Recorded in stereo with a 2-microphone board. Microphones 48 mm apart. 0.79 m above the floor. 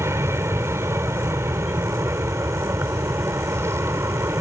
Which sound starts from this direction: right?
An aircraft, at 0.0 s.